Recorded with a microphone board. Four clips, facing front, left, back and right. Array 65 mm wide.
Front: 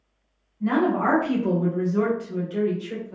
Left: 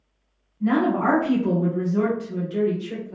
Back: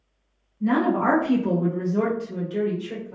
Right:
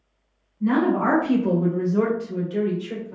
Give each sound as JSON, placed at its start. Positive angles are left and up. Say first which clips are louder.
{"t": 0.6, "sound": "a woman speaking", "louder": "even, back 1 dB", "azimuth_deg": 45, "distance_m": 1.5}